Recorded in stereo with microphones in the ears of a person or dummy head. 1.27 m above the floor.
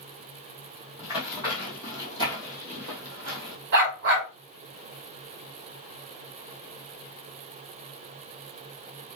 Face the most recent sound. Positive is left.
turn(degrees=-55)  # may be behind; listen again after turning